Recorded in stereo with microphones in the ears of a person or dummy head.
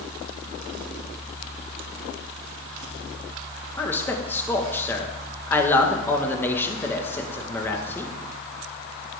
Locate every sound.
3.8 s a man speaking: 25° left (ahead or behind), 1.8 m